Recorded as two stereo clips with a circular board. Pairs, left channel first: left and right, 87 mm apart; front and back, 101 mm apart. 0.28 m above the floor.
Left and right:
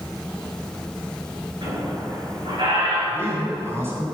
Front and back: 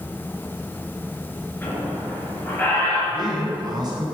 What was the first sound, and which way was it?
A squeak, 70° right.